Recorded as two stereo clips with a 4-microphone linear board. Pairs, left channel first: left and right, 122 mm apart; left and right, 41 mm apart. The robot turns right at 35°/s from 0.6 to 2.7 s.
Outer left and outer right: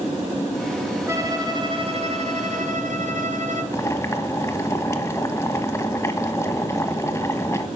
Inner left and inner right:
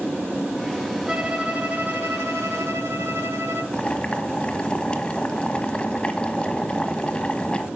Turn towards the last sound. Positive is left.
turn(degrees=20)  # may be behind; listen again after turning